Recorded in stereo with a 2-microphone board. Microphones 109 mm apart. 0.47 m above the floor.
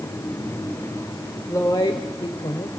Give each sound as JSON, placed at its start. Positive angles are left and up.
{"t": 1.5, "sound": "a woman speaking", "side_deg": 25, "distance_m": 1.2}